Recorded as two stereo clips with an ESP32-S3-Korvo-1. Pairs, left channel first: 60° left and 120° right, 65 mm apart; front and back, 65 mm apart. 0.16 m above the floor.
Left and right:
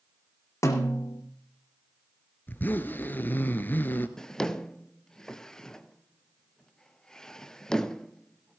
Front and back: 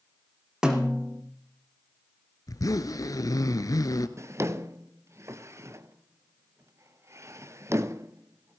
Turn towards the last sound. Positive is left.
turn(degrees=140)